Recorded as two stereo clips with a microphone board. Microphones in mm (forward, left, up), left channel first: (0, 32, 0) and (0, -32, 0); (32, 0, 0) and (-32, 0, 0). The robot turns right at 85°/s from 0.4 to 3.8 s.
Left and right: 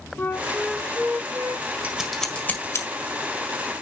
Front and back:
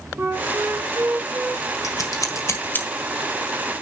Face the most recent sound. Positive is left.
turn(degrees=145)